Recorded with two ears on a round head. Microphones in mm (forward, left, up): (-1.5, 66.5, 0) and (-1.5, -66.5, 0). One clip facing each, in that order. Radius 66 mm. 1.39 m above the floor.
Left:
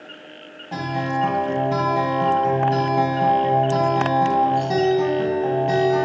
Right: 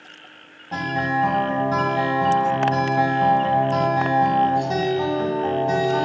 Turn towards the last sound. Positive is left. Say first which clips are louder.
# right 1 dB
turn(degrees=10)  # may be behind; listen again after turning